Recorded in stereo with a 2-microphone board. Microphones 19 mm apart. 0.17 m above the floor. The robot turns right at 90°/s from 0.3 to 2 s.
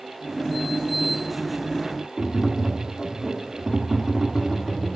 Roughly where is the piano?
I don't hear a piano.